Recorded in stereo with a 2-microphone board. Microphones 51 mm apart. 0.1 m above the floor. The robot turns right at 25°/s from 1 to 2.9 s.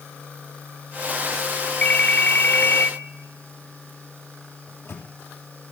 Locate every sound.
1.8 s a ringtone: 20° left (ahead or behind), 1.2 m; by 2.9 s 25° left (ahead or behind), 1.2 m
4.7 s a microwave: 55° left (ahead or behind), 3 m